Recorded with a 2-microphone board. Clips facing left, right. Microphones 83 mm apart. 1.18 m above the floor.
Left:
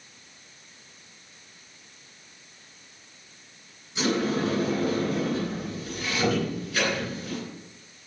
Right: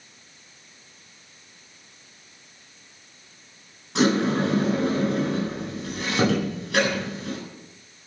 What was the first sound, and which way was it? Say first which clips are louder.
A sliding door: right 5 dB; 85° right.